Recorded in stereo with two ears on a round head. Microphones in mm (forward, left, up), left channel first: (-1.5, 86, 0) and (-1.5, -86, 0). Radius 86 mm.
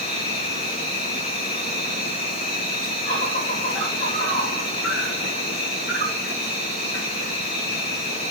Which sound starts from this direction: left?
An insect, at 0.0 s.